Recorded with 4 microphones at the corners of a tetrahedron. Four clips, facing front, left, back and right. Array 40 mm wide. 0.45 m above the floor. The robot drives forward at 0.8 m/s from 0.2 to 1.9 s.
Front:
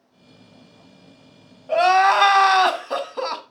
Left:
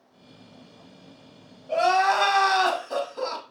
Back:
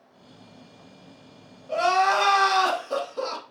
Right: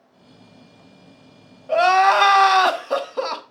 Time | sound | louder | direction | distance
1.7 | crying | right 6 dB, front 6 dB | 50° right | 1.1 m